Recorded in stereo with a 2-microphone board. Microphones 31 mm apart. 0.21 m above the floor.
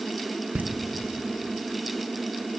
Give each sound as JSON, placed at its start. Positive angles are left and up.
{"t": 0.6, "sound": "laughter", "side_deg": -60, "distance_m": 2.5}